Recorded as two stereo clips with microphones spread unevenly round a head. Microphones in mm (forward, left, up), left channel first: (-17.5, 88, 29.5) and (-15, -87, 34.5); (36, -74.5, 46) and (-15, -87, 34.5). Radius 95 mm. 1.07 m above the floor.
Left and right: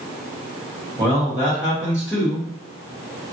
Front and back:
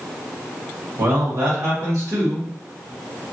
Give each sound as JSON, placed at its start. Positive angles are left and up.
{"t": 1.0, "sound": "a man speaking", "azimuth_deg": -170, "distance_m": 1.3}